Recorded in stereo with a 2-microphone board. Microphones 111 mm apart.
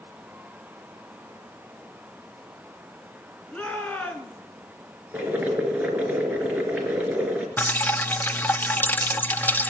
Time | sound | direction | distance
3.5 | a shout | 10° left (ahead or behind) | 3.5 m
5.1 | boiling | 15° right (ahead or behind) | 3 m
7.6 | dripping | 15° left (ahead or behind) | 0.6 m